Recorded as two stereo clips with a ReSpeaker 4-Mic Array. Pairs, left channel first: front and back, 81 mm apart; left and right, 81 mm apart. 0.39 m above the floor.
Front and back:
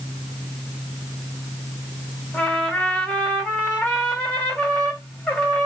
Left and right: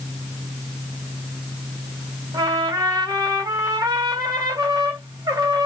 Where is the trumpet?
75° right, 2 m.